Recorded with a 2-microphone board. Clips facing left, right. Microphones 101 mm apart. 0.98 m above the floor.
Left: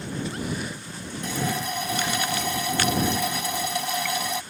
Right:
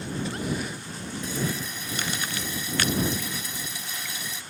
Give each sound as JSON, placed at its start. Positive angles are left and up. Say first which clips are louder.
{"t": 1.2, "sound": "a running tap", "louder": "left 4 dB", "side_deg": 65}